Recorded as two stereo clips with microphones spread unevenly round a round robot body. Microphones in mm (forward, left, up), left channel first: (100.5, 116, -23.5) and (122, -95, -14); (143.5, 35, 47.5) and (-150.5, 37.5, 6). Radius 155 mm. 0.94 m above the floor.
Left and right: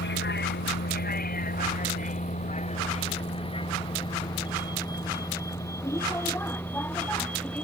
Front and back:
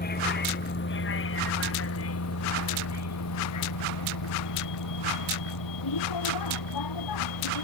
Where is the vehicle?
60° left; by 7.7 s 10° left.